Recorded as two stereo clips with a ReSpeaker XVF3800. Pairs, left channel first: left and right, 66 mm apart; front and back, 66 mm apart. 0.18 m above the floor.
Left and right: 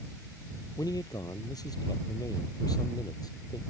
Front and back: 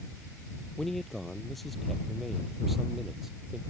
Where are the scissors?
I don't hear scissors.